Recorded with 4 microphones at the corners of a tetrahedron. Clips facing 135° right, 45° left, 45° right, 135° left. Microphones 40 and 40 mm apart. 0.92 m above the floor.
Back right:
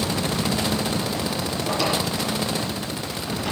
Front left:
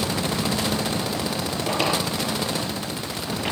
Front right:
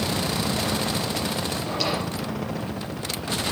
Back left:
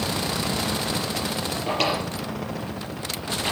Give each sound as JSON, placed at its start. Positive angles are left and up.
{"t": 1.7, "sound": "a drawer", "azimuth_deg": 95, "distance_m": 5.5}